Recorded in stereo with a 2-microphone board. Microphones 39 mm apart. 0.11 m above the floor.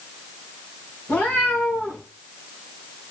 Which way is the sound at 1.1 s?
80° left.